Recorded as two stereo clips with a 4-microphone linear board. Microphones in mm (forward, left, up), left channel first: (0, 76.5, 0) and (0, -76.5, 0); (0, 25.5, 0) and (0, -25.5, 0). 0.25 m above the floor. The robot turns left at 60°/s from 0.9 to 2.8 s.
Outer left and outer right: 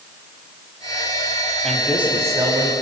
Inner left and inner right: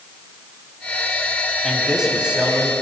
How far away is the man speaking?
About 1.6 m.